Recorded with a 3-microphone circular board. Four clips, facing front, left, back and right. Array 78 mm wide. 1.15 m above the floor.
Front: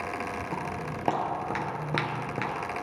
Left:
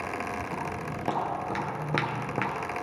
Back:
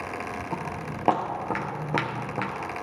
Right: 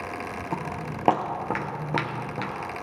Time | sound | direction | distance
0.5 | footsteps | 100° right | 2 m